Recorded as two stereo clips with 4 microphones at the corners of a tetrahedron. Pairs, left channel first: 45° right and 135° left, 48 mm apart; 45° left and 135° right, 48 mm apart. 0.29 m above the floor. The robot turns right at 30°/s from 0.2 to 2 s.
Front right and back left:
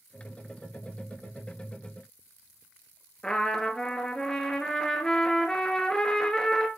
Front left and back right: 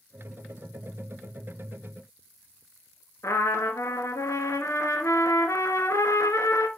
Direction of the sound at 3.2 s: 30° left.